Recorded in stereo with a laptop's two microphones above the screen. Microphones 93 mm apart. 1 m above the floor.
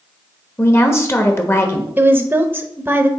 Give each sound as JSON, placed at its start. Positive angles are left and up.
{"t": 0.6, "sound": "a woman speaking", "side_deg": 30, "distance_m": 1.3}
{"t": 2.0, "sound": "a woman speaking", "side_deg": -20, "distance_m": 0.8}